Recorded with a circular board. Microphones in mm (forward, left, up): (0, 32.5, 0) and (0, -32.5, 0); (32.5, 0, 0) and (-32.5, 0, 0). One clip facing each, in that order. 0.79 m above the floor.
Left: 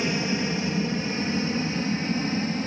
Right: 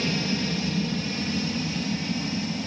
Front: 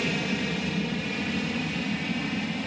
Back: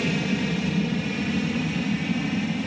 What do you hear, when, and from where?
0.0 s an aircraft: 90° left; by 2.7 s 95° left